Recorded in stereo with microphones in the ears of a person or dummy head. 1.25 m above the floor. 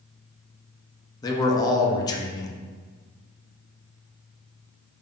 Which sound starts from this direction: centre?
A man speaking, at 1.2 s.